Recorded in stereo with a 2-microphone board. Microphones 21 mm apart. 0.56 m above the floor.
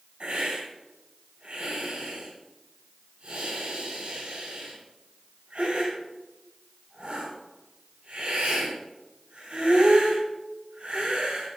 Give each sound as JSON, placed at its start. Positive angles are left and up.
{"t": 0.2, "sound": "a hiss", "side_deg": -75, "distance_m": 4.0}